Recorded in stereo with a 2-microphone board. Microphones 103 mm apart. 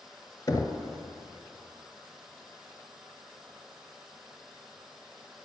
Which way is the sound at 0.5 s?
35° left (ahead or behind).